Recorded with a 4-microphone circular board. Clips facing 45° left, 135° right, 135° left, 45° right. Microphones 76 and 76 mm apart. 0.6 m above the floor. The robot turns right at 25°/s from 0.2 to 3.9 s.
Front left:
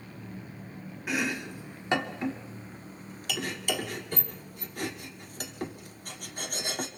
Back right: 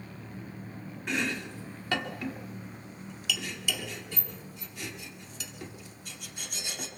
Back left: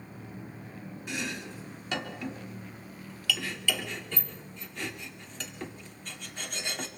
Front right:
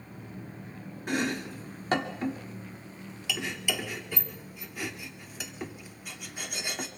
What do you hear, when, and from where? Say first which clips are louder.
1.1 s chopping: front left 1 dB, front right 7 dB; 40° right, 1.7 m; by 6.9 s 35° left, 1.7 m